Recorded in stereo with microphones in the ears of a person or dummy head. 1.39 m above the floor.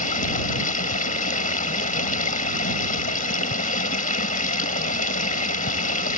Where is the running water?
40° left (ahead or behind).